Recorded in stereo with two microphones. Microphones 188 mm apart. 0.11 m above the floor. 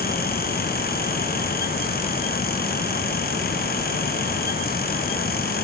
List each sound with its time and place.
Only background noise.